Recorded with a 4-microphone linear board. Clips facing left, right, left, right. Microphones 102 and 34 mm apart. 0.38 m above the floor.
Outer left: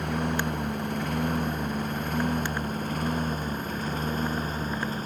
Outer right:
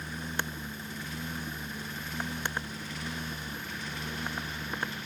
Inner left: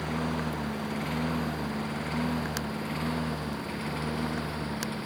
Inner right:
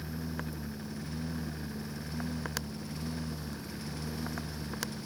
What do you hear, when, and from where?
0.0 s a lawn mower: 65° left (ahead or behind); by 5.1 s 45° left (ahead or behind)